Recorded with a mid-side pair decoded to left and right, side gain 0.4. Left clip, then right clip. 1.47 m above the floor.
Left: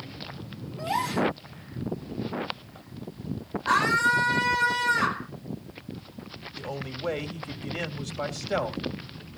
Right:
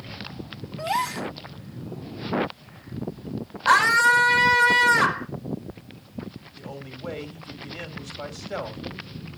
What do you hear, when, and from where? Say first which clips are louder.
0.8 s a gasp: right 1 dB; 35° right, 2.5 m
3.7 s a scream: right 5 dB; 65° right, 4.5 m
6.6 s a man speaking: left 5 dB; 40° left, 3.5 m